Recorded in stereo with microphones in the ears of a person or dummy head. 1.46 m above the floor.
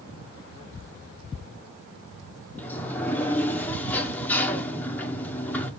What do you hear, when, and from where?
2.6 s a sliding door: 10° left (ahead or behind), 0.9 m